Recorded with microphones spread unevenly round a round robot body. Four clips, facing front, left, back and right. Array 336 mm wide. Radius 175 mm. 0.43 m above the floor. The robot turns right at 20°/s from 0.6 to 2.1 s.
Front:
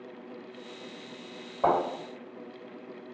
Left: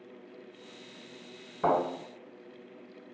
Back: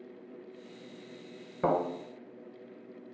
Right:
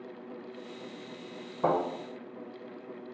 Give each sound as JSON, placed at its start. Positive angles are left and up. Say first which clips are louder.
{"t": 1.6, "sound": "a thud", "louder": "left 1 dB, front 3 dB", "azimuth_deg": 170, "distance_m": 1.3}